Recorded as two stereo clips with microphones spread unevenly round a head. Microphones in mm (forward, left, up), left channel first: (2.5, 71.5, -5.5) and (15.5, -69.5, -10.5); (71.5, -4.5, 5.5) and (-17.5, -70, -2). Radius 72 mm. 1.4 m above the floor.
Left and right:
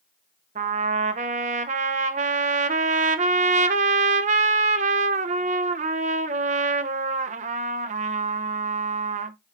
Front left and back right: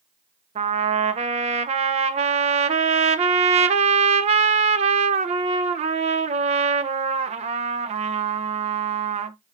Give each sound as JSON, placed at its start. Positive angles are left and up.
{"t": 0.6, "sound": "a trumpet", "azimuth_deg": -125, "distance_m": 0.7}